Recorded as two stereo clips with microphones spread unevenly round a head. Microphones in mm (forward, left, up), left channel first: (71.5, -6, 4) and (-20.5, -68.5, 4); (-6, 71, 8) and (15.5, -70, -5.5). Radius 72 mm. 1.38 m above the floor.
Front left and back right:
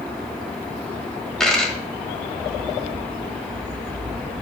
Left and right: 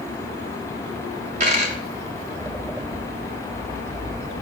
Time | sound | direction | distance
1.4 | a dropped coin | 50° right | 1.7 m